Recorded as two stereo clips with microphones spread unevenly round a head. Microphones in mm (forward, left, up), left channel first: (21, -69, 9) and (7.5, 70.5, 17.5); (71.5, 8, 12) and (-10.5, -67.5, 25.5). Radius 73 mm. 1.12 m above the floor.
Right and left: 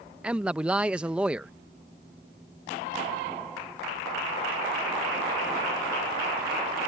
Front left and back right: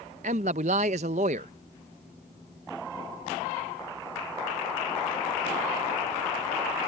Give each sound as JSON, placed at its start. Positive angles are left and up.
{"t": 0.2, "sound": "a man speaking", "azimuth_deg": 180}